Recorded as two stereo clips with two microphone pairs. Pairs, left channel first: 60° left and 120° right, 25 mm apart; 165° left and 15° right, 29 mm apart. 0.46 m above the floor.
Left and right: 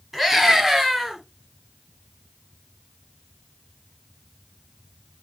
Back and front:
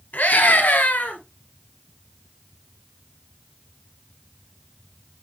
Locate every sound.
0.1 s a scream: 165° left, 7 m; by 1.2 s 160° left, 6.5 m